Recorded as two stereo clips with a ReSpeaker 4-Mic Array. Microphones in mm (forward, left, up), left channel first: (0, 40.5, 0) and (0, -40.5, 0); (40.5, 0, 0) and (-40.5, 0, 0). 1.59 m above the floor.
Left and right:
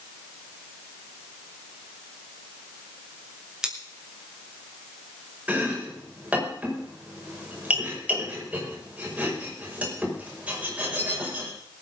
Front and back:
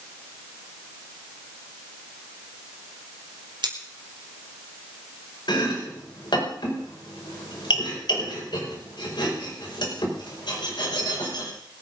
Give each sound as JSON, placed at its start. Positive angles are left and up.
{"t": 3.6, "sound": "scissors", "azimuth_deg": -170, "distance_m": 3.0}
{"t": 5.5, "sound": "chopping", "azimuth_deg": -15, "distance_m": 5.0}